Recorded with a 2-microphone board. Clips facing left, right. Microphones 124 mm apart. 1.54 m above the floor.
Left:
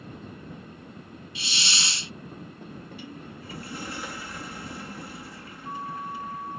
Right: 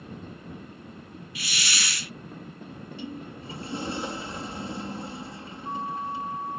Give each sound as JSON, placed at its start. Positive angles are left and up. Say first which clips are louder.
{"t": 1.4, "sound": "a hiss", "louder": "even", "side_deg": 25}
{"t": 2.7, "sound": "a sliding door", "louder": "right 7 dB", "side_deg": -25}